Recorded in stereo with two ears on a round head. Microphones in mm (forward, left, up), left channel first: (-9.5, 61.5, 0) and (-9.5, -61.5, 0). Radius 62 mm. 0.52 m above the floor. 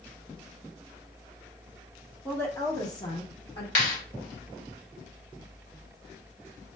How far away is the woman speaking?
About 0.8 m.